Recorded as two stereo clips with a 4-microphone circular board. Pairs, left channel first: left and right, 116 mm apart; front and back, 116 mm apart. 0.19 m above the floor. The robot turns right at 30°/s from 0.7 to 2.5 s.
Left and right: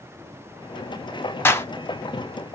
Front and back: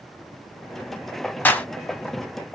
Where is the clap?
50° left, 0.8 m; by 1.7 s 55° left, 0.8 m.